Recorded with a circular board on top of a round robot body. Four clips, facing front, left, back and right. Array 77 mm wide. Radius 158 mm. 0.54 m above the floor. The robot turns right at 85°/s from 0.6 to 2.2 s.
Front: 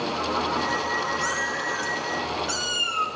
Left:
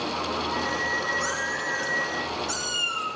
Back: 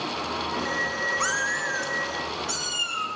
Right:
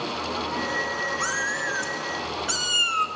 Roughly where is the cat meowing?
Behind.